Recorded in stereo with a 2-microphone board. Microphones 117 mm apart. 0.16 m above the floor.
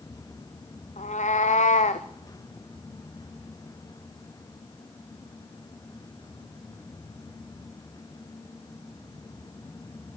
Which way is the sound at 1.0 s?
90° left.